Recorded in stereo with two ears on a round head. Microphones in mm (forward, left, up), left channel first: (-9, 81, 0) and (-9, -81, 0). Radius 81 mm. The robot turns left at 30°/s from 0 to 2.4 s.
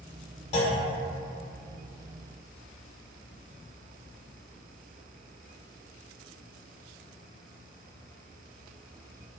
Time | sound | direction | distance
0.5 | a clunk | 35° left (ahead or behind) | 0.5 m